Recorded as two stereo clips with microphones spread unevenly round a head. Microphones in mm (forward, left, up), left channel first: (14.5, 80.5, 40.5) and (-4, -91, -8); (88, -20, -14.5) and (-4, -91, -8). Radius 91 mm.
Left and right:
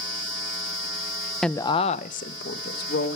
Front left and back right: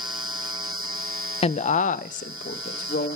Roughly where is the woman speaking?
Ahead.